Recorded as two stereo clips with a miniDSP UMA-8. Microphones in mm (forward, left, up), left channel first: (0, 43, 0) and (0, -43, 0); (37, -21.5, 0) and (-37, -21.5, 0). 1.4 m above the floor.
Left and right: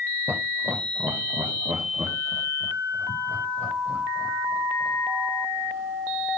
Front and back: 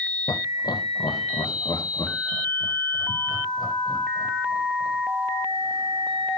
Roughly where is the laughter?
Ahead right.